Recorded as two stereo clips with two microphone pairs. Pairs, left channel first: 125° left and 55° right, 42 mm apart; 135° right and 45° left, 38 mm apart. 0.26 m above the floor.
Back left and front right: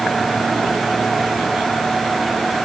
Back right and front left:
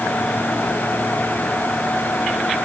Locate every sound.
Only background noise.